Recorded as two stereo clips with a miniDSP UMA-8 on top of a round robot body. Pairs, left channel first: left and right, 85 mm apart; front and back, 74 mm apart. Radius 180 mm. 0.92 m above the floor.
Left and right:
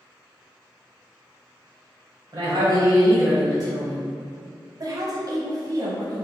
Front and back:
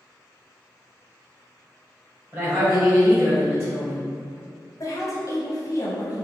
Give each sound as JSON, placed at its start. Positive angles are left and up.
{"t": 2.3, "sound": "a woman speaking", "azimuth_deg": -120, "distance_m": 1.2}
{"t": 4.8, "sound": "a woman speaking", "azimuth_deg": -45, "distance_m": 0.7}